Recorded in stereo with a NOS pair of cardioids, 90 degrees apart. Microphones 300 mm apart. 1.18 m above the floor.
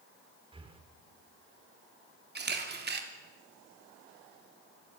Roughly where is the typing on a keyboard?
I don't hear typing on a keyboard.